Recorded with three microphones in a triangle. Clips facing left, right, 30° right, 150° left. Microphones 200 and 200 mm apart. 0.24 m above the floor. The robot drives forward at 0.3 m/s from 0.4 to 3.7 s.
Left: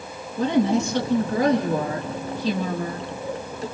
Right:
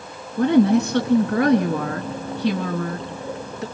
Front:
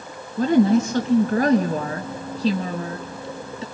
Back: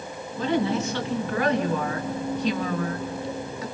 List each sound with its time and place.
0.4 s a woman speaking: 70° right, 2.5 m; by 3.6 s 95° right, 2.5 m